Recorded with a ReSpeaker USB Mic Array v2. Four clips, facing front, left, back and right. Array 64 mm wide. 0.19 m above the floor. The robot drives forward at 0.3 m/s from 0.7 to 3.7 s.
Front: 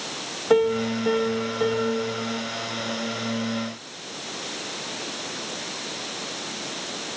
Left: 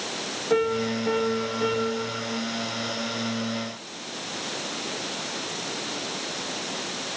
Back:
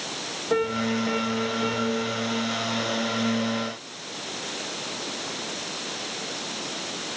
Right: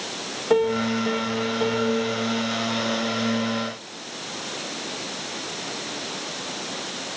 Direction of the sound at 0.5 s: 20° right.